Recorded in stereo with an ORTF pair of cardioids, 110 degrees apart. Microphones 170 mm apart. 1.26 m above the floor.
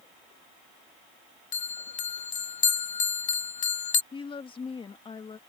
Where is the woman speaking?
30° left.